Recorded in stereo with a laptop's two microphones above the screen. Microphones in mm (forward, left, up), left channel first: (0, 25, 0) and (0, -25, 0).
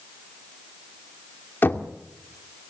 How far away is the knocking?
About 2.5 m.